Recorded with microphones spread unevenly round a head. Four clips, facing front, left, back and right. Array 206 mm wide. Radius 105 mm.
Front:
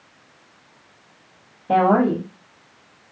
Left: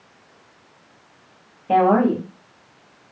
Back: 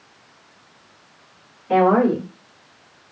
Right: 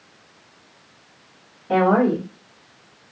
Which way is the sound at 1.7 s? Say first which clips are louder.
Left 1 dB, back 1 dB; 45° left.